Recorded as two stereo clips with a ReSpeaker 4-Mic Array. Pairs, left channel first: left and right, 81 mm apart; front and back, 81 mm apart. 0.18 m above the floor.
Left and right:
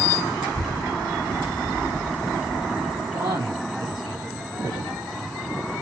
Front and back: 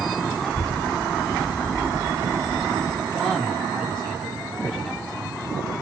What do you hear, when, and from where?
0.4 s a child speaking: 85° right, 1.9 m; by 3.0 s 170° right, 1.7 m
3.1 s a man speaking: 85° right, 3.5 m